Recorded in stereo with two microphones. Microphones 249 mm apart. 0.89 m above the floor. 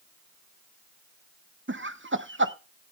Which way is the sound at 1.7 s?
50° right (ahead or behind).